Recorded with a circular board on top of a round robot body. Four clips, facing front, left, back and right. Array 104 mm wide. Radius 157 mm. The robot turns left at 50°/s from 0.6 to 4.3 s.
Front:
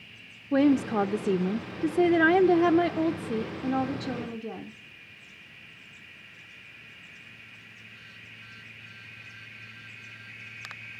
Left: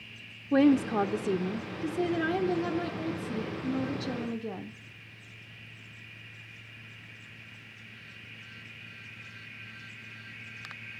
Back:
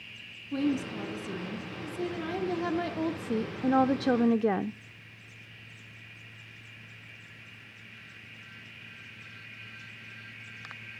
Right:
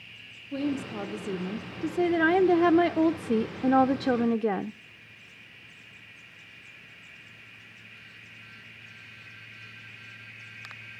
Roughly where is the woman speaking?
Ahead left.